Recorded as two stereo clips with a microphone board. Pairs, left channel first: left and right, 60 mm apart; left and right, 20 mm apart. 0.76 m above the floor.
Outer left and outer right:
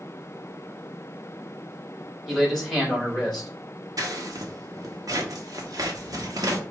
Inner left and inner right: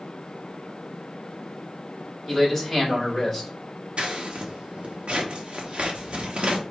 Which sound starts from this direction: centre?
A man speaking, at 2.3 s.